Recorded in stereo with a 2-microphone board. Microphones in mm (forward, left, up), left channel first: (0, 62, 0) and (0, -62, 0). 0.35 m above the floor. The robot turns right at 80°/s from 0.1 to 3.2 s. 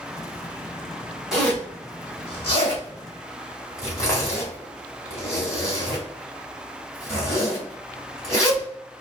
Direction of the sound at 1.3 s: 5° right (ahead or behind).